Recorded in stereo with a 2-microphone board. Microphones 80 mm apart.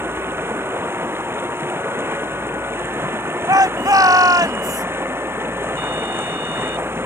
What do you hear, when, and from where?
0.0 s running water: 30° right (ahead or behind)
3.5 s a shout: 50° right (ahead or behind)